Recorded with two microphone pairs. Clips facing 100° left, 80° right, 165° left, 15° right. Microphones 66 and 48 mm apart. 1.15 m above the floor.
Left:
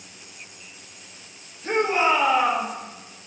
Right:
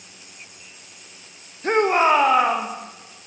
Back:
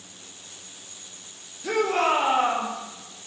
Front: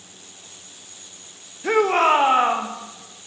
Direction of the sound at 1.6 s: 60° right.